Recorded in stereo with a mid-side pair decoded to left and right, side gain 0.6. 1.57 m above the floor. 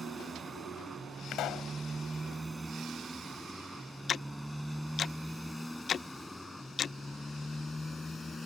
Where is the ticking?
40° left.